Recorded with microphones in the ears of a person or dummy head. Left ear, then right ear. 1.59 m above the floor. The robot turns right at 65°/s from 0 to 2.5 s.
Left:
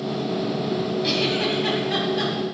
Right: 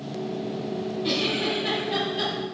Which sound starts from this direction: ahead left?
A giggle, at 1.0 s.